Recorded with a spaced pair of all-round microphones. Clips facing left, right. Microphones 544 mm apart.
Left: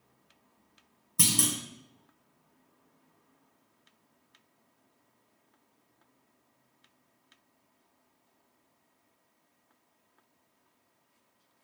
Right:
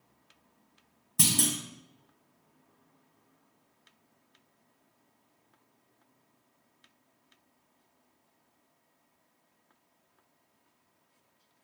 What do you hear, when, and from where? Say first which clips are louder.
1.2 s a clunk: right 1 dB; 15° right (ahead or behind), 0.8 m